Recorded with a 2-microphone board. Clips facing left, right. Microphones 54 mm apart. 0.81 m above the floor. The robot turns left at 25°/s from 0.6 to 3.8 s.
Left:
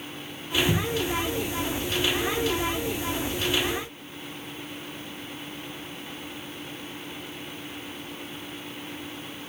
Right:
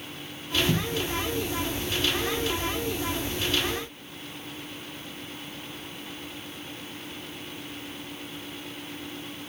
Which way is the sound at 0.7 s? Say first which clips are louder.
Left 2 dB; 35° left (ahead or behind).